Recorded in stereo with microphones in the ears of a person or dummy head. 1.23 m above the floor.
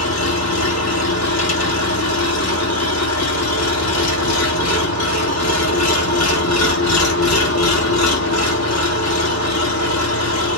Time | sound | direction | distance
0.0 | an engine running | 80° left | 1.4 m